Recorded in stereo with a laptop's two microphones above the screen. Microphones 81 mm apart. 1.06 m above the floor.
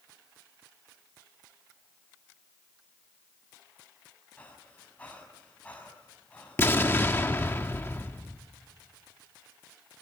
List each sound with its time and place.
4.4 s breathing: 20° left (ahead or behind), 5.5 m
6.6 s an explosion: 30° left (ahead or behind), 1.0 m